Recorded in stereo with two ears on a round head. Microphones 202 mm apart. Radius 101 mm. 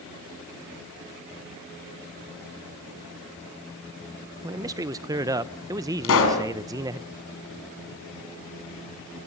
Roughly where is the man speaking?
Centre.